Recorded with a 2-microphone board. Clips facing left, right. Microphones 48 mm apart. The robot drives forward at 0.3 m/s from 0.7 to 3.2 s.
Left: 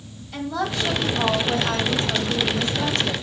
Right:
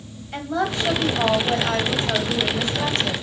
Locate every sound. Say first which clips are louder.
0.3 s a woman speaking: right 2 dB; 30° right (ahead or behind), 2.5 m; by 3.1 s 35° right (ahead or behind), 2 m